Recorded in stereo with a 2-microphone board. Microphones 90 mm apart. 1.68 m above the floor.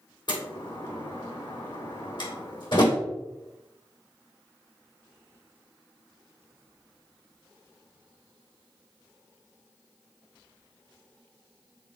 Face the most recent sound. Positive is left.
turn(degrees=60)  # may be behind; listen again after turning